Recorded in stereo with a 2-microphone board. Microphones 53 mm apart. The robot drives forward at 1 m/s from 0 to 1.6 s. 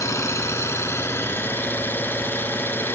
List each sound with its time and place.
0.0 s an engine running: 80° left, 1.8 m; by 3.0 s 45° left (ahead or behind), 2.5 m